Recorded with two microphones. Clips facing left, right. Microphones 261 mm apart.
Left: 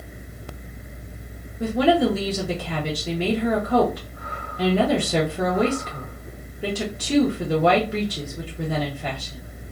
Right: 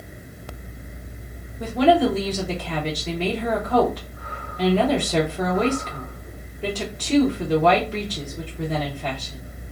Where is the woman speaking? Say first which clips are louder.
Right 1 dB; 10° left (ahead or behind), 0.7 m.